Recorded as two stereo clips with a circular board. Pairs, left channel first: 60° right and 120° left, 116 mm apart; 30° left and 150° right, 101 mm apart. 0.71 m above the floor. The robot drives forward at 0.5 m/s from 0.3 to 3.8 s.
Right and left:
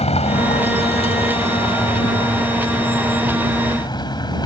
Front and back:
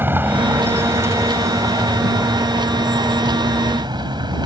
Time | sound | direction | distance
0.0 | a vehicle | 85° right | ?